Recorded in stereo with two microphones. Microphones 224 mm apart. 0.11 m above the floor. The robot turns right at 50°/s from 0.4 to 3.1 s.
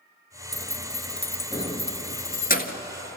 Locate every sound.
0.5 s keys jangling: 15° right (ahead or behind), 1.4 m; by 2.8 s 40° left (ahead or behind), 1.4 m